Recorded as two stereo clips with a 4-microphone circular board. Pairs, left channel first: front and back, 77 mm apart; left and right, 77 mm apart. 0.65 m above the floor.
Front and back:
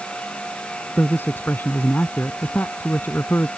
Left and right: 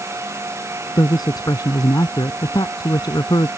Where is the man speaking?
65° left.